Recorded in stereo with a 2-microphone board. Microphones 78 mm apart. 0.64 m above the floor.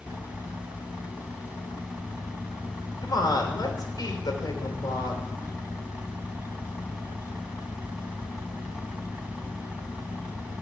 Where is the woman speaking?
65° left (ahead or behind), 2.5 m.